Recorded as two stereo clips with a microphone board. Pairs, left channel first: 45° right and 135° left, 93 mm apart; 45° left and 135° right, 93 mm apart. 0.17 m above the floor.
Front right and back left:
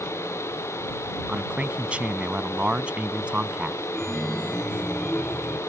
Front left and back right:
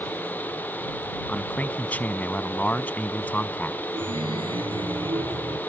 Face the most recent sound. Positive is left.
turn(degrees=-130)